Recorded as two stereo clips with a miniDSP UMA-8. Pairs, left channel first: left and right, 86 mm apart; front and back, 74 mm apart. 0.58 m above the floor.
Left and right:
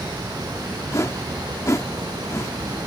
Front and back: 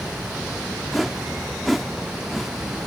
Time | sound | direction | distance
0.9 | a whoosh | 90° left | ?